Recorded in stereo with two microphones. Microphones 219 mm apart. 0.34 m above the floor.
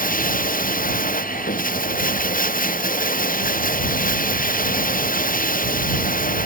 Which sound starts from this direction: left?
Running water, at 0.0 s.